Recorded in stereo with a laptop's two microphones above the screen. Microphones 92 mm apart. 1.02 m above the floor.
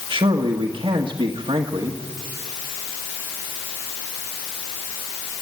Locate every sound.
0.1 s a man speaking: 65° right (ahead or behind), 1.6 m